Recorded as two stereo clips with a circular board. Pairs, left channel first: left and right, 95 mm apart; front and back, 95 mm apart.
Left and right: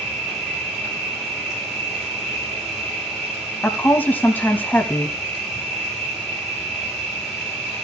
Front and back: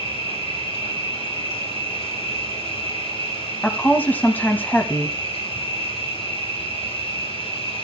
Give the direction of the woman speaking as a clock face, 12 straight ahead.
10 o'clock.